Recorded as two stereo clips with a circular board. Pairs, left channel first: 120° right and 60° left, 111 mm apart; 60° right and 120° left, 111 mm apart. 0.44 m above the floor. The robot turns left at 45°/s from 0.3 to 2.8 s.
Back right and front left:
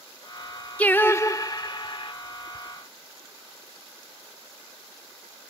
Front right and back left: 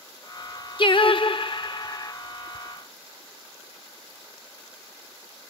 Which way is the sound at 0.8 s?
45° right.